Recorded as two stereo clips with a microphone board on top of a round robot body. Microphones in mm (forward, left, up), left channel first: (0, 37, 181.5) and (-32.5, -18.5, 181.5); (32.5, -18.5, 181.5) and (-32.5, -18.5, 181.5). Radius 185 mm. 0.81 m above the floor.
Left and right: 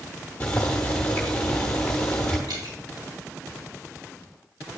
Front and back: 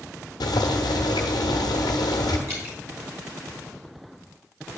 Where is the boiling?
10° right, 1.0 m.